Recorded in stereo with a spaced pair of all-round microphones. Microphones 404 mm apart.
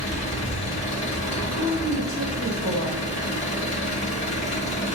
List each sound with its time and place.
0.0 s an engine running: 15° left (ahead or behind), 1.4 m
1.6 s a woman speaking: 50° right (ahead or behind), 2.5 m